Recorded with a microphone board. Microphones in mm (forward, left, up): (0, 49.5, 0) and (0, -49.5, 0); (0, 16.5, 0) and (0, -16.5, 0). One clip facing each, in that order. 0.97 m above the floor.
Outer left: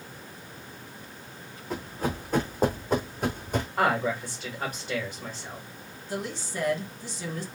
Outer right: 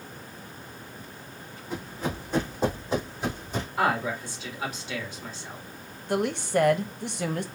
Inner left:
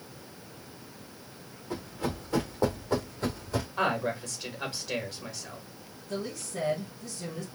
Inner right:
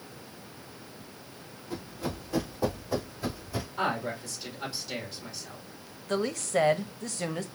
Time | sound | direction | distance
1.7 | running footsteps | 40° left (ahead or behind) | 3 m
3.8 | a man speaking | 45° left (ahead or behind) | 3 m
6.1 | a woman speaking | 60° right (ahead or behind) | 0.7 m